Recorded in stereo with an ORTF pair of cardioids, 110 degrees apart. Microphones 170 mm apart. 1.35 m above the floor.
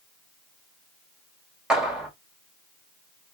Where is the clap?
5° right, 1.8 m.